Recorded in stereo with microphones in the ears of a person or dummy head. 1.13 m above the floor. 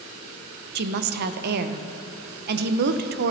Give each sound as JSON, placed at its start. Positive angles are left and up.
{"t": 0.8, "sound": "a woman speaking", "side_deg": -55, "distance_m": 0.5}